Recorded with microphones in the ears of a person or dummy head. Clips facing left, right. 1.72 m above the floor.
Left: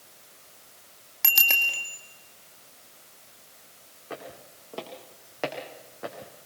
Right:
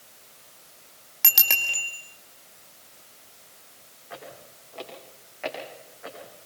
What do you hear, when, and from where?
1.2 s a bicycle bell: centre (ahead or behind), 2 m
4.1 s footsteps: 60° left (ahead or behind), 7 m; by 6.3 s 70° left (ahead or behind), 6 m